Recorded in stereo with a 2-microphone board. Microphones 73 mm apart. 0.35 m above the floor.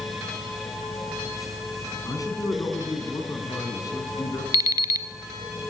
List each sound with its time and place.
2.0 s a man speaking: 55° left (ahead or behind), 4 m
4.5 s an alarm clock: 55° right (ahead or behind), 1.0 m